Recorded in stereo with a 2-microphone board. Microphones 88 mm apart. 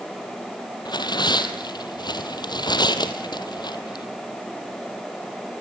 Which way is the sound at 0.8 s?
55° left (ahead or behind).